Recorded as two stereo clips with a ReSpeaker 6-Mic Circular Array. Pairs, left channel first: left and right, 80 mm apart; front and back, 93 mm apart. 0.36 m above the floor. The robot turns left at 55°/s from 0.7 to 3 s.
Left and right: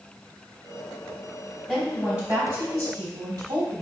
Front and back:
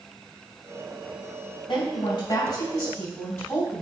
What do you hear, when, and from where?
1.7 s a woman speaking: 10° left, 3 m; by 3.8 s 60° right, 3 m